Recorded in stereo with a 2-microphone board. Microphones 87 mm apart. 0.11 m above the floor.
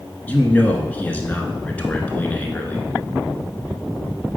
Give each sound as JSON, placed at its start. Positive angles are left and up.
{"t": 0.3, "sound": "a man speaking", "side_deg": 15, "distance_m": 1.1}